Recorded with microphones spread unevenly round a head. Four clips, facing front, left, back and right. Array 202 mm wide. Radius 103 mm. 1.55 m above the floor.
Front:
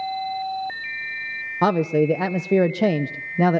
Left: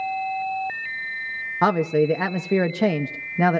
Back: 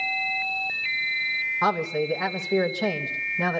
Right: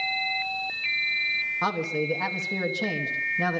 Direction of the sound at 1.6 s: 20° left.